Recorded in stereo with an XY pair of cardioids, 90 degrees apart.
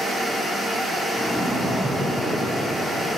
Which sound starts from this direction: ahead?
A splash, at 1.1 s.